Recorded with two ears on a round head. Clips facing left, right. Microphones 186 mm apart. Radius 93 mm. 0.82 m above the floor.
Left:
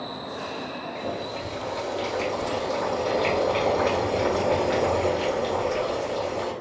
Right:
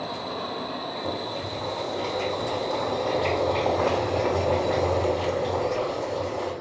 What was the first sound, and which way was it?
Boiling, 25° left (ahead or behind).